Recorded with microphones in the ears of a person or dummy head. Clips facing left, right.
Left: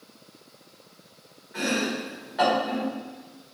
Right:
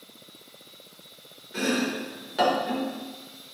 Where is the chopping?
40° right (ahead or behind), 3.5 m.